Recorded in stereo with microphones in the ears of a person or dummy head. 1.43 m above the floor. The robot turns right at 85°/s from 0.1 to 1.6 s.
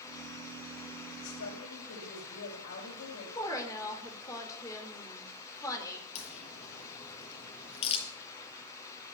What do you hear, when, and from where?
1.2 s a woman speaking: 75° left, 5.5 m; by 3.2 s 110° left, 5.5 m
3.4 s a woman speaking: 20° left (ahead or behind), 4 m
6.2 s a crack: 35° left (ahead or behind), 4.5 m